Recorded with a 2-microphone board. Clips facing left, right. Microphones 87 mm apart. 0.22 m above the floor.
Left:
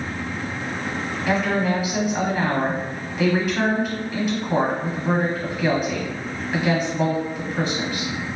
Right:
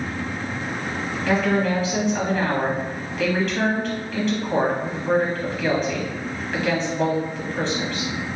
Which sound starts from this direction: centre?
A woman speaking, at 1.3 s.